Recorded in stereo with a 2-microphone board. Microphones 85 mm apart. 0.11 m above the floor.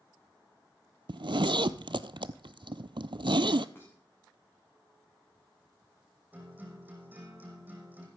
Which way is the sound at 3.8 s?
30° left (ahead or behind).